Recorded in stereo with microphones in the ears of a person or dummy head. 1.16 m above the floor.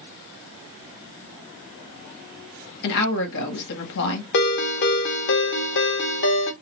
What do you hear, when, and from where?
2.8 s a woman speaking: 60° left (ahead or behind), 1.2 m
4.3 s a ringtone: 60° left (ahead or behind), 0.6 m